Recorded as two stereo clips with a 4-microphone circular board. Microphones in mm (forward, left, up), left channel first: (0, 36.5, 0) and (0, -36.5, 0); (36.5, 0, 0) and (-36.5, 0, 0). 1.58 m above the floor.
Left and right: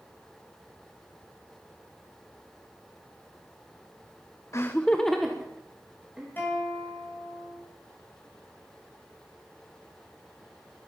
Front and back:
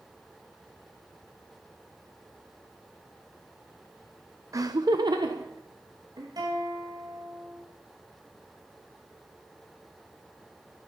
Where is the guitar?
150° left, 6.5 m.